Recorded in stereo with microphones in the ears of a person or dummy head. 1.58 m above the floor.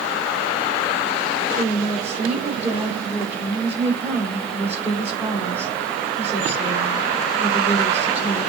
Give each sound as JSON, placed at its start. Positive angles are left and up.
{"t": 1.6, "sound": "a woman speaking", "side_deg": -10, "distance_m": 6.0}